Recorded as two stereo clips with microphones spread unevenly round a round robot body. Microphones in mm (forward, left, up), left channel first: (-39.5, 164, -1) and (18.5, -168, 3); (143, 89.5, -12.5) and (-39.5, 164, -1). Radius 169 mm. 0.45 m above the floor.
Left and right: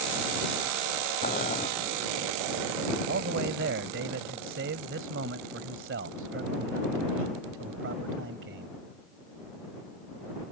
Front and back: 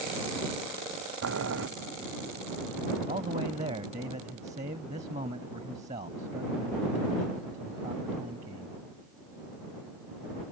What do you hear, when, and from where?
1.2 s boiling: 170° left
3.1 s a man speaking: 135° right